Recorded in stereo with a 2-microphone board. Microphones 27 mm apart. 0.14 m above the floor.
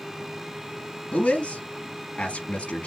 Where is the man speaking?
55° left (ahead or behind), 3 m.